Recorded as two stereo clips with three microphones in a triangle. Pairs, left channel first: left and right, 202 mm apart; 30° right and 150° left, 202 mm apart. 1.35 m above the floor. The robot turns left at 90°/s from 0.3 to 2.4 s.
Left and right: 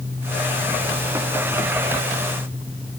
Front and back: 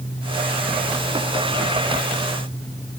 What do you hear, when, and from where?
Only background noise.